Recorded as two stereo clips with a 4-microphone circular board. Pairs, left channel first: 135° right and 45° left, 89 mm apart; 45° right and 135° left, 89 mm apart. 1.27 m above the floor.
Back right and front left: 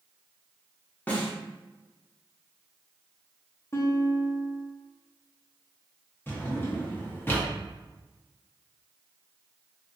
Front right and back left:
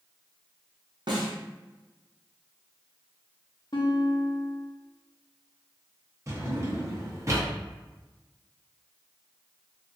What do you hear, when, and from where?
1.1 s a snare drum: 155° left, 0.8 m
3.7 s a guitar: 80° right, 0.7 m
6.3 s a drawer: 170° left, 0.8 m